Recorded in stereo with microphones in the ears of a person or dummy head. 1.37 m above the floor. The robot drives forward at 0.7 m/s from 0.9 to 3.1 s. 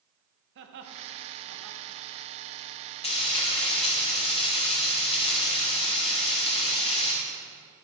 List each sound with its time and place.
0.6 s laughter: 70° right (ahead or behind), 1.2 m; by 1.9 s 75° right (ahead or behind), 1.2 m
3.0 s frying: 35° left (ahead or behind), 1.8 m